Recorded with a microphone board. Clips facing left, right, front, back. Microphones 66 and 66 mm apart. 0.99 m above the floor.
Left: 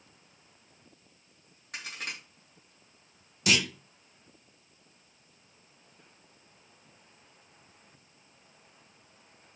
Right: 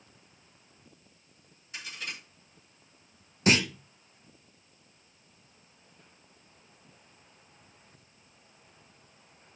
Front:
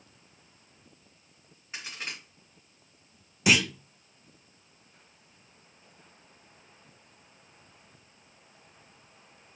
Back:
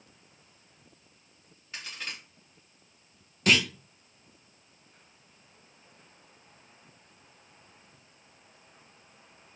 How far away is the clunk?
About 0.5 m.